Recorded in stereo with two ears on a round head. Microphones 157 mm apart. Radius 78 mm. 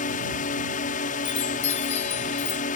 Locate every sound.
0.0 s a drone: 50° left (ahead or behind)
1.2 s a chime: 40° left (ahead or behind)